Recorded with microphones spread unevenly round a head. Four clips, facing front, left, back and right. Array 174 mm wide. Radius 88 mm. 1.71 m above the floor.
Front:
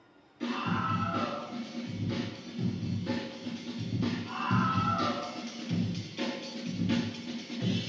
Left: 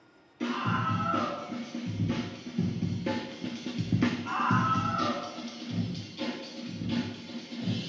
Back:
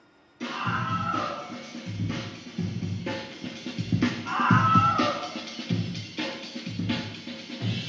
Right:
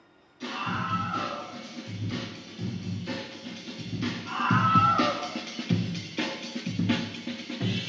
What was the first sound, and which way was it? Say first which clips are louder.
A scream: left 2 dB, back 2 dB; 110° left.